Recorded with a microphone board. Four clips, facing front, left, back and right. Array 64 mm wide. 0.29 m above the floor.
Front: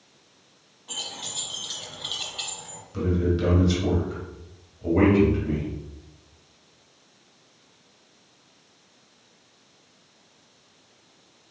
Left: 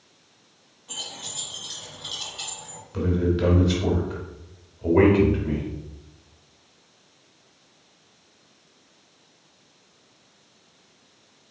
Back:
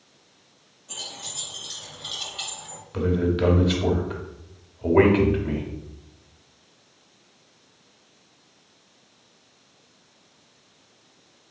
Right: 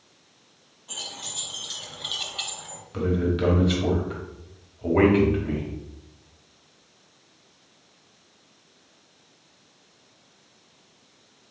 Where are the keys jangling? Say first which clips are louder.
Even, front 2 dB; straight ahead, 1.5 m; by 2.8 s 120° right, 1.0 m.